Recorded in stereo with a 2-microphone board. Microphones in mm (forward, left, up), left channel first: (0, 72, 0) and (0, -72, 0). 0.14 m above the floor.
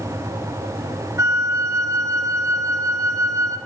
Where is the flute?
20° right (ahead or behind), 0.5 m.